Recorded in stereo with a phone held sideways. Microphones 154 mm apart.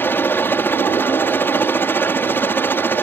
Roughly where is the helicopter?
Centre.